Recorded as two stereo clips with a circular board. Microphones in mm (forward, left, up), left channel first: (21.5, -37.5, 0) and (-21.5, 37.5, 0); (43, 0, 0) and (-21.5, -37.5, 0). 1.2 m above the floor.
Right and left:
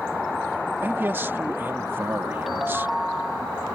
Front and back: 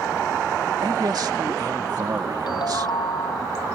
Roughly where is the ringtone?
Ahead left.